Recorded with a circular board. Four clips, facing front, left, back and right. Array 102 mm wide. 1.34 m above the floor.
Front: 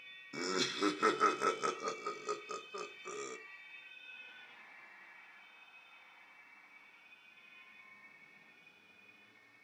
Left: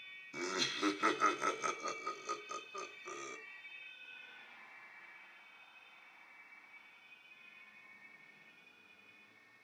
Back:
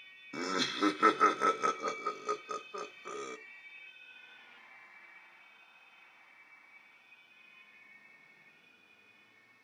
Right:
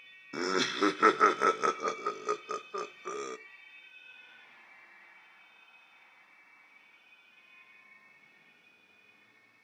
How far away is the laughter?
About 0.8 m.